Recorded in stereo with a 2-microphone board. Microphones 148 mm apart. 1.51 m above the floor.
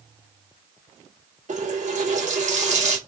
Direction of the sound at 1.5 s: 55° right (ahead or behind).